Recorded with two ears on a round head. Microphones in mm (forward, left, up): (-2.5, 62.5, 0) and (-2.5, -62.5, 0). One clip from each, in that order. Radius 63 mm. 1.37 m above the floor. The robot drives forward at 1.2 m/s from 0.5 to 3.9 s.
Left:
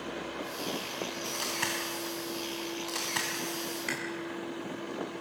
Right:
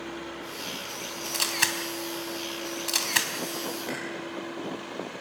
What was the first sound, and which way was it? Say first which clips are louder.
A camera shutter: right 7 dB; 55° right (ahead or behind).